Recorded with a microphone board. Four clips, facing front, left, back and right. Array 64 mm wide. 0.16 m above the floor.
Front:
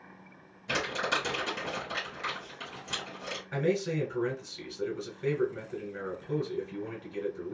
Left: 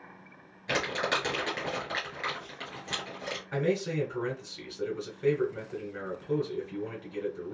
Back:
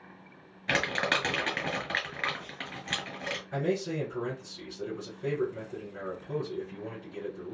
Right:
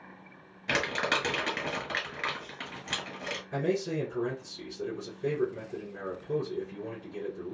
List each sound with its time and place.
0.7 s crumpling: 170° right, 1.6 m
3.5 s a man speaking: 50° left, 1.4 m